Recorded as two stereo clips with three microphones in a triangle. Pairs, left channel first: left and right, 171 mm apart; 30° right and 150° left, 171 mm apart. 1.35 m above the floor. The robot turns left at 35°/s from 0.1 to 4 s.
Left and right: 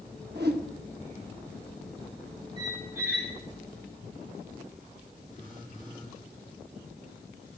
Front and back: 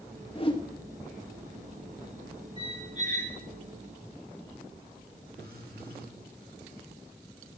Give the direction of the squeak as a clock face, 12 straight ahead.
5 o'clock.